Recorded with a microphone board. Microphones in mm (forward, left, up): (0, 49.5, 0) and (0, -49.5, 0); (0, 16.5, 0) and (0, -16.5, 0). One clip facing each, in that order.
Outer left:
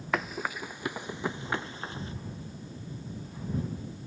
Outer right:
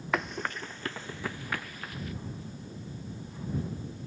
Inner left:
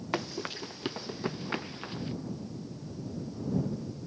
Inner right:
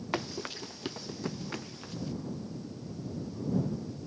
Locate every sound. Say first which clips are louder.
0.1 s running footsteps: even, inner left 1 dB; centre (ahead or behind); by 2.1 s 30° left (ahead or behind)